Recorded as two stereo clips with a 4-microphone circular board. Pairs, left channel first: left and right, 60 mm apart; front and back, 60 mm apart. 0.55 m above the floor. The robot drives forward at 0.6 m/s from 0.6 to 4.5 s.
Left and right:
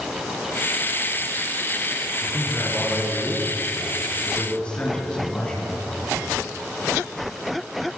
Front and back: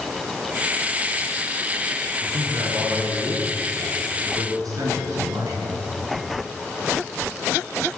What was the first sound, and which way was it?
A man speaking, 160° left.